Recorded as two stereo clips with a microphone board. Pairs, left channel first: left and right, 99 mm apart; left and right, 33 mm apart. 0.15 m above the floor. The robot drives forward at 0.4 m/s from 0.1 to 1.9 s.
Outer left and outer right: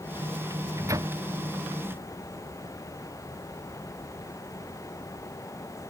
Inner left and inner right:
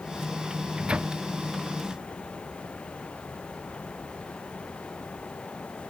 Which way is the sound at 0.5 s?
30° right (ahead or behind).